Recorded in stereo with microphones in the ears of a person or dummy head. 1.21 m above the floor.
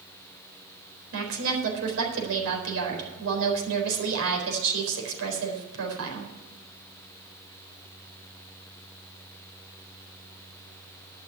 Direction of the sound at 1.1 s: 70° right (ahead or behind).